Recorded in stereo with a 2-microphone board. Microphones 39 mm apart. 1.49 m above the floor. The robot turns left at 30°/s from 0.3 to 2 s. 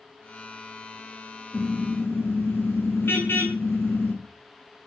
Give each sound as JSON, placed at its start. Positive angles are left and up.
{"t": 1.5, "sound": "a car horn", "side_deg": 65, "distance_m": 8.5}